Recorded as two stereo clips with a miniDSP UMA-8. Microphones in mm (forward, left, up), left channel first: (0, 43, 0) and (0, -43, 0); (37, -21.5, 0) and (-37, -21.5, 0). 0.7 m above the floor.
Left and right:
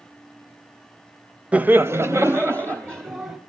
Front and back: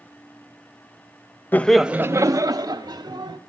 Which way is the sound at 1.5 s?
30° right.